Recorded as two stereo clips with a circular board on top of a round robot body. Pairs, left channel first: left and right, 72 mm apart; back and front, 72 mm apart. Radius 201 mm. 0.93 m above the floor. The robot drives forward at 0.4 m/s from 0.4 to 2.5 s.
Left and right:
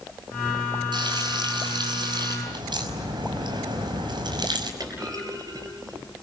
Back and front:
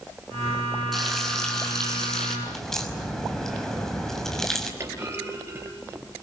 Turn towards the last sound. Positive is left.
turn(degrees=-60)